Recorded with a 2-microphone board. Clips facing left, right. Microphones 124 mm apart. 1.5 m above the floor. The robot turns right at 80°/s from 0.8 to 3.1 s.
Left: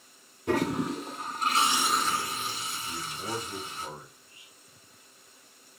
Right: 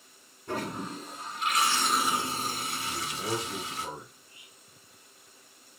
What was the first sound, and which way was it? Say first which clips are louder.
A toilet flushing: left 7 dB; 90° left.